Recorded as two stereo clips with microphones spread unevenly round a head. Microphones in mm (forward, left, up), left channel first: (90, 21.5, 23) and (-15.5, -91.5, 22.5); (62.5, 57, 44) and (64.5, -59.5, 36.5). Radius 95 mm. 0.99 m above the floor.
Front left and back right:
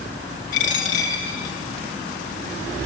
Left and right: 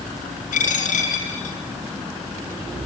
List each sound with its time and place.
0.5 s a dropped coin: 95° left, 6.5 m